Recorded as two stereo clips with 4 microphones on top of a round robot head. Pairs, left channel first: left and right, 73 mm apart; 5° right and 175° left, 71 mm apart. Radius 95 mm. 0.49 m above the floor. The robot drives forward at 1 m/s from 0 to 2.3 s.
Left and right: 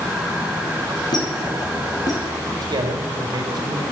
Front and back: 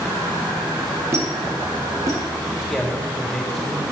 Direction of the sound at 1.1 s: 120° left.